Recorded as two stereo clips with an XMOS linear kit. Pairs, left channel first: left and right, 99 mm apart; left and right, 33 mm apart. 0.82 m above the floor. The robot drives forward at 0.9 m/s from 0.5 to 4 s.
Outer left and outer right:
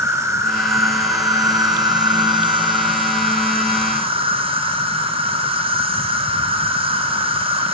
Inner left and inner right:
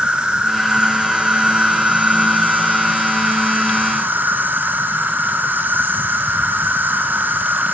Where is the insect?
30° right (ahead or behind), 3.5 m; by 7.7 s 70° right (ahead or behind), 1.7 m.